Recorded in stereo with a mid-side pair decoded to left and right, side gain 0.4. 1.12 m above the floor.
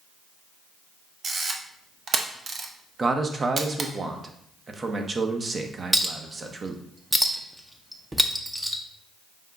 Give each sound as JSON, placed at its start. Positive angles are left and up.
{"t": 1.2, "sound": "a camera shutter", "azimuth_deg": -50, "distance_m": 0.8}
{"t": 3.0, "sound": "a man speaking", "azimuth_deg": -40, "distance_m": 0.8}
{"t": 5.9, "sound": "a clink", "azimuth_deg": -10, "distance_m": 0.7}